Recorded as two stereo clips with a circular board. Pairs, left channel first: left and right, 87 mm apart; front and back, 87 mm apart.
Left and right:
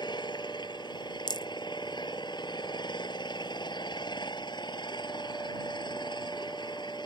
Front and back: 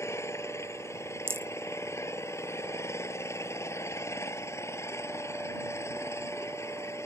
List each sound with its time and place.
0.0 s an engine running: 60° left
1.3 s a rattle: 120° left